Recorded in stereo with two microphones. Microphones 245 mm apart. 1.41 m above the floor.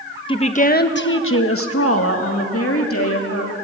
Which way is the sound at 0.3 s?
20° left (ahead or behind).